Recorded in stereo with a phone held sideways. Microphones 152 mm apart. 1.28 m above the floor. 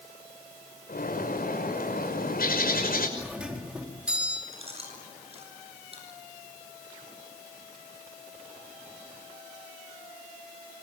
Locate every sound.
0.9 s a bird: 80° left, 6 m
3.2 s a doorbell: 5° right (ahead or behind), 4 m
4.5 s chewing: 40° right (ahead or behind), 8 m